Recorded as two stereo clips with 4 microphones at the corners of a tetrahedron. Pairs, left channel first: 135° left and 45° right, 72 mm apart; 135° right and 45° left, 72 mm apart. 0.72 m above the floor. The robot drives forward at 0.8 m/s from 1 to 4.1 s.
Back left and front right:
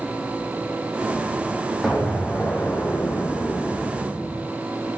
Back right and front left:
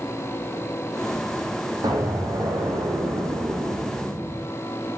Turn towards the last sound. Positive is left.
turn(degrees=70)